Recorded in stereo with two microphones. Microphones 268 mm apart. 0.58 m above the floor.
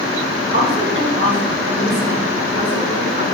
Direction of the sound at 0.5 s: 65° right (ahead or behind).